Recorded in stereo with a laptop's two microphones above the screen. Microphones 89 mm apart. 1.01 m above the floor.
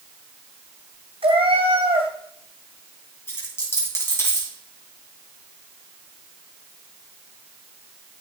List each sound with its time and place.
1.2 s a cat meowing: 75° right (ahead or behind), 2.0 m
3.3 s a dropped coin: 30° left (ahead or behind), 2.5 m